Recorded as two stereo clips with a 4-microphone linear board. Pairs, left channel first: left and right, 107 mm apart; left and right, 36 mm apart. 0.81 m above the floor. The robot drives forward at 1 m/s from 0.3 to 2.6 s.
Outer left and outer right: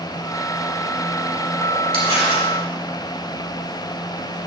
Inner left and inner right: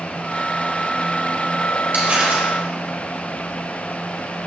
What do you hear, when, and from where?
1.9 s crumpling: 60° right (ahead or behind), 2.5 m; by 2.5 s 50° right (ahead or behind), 2.5 m